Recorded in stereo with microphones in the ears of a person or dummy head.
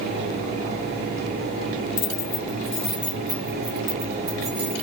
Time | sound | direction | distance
2.0 | keys jangling | 35° left (ahead or behind) | 0.6 m